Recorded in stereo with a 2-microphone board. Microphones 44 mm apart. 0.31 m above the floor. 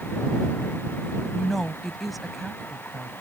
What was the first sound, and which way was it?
A woman speaking, centre (ahead or behind).